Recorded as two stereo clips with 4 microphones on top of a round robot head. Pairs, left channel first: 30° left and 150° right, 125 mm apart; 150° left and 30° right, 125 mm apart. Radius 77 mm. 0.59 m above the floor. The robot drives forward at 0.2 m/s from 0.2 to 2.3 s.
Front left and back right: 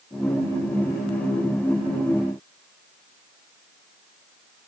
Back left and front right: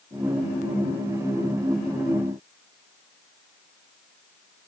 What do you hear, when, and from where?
Only background noise.